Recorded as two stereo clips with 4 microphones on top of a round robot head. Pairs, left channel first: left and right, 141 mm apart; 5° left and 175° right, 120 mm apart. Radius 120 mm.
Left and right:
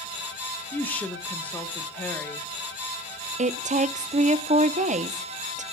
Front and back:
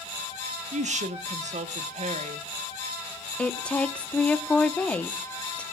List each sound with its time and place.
0.7 s a woman speaking: 170° left, 1.3 m
3.4 s a woman speaking: 75° right, 1.0 m